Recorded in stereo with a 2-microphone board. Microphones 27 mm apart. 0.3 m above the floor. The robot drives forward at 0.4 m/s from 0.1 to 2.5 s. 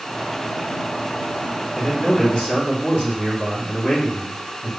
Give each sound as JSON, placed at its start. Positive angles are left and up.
{"t": 1.8, "sound": "a man speaking", "side_deg": 50, "distance_m": 2.5}